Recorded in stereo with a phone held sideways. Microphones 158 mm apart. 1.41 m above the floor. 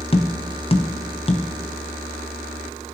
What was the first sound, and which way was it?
Tapping, 40° left (ahead or behind).